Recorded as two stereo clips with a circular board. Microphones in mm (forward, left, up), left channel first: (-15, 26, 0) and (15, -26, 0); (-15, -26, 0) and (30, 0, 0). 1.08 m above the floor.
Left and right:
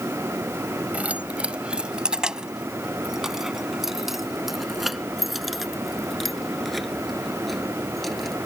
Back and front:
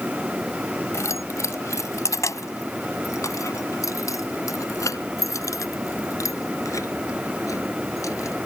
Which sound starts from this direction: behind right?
Keys jangling, at 0.9 s.